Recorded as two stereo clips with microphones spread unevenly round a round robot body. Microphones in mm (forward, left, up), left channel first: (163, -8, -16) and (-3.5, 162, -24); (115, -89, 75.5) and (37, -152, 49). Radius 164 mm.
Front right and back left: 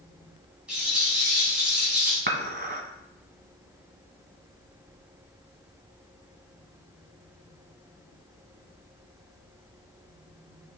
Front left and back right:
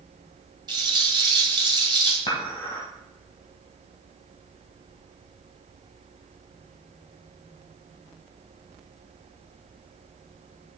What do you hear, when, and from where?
0.7 s a rattle: 140° right, 1.9 m
2.3 s dishes clattering: 90° left, 1.4 m